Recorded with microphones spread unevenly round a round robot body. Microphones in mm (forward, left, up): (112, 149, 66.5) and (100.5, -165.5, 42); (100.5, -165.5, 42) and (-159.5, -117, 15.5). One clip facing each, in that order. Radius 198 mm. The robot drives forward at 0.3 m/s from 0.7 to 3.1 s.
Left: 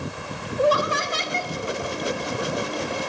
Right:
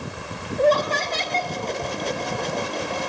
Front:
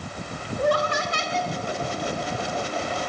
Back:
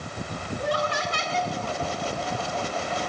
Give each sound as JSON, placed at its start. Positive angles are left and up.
{"t": 0.6, "sound": "laughter", "azimuth_deg": 10, "distance_m": 1.5}